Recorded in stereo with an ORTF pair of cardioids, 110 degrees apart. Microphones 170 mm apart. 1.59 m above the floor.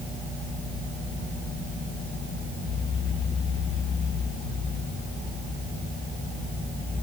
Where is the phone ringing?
I don't hear a phone ringing.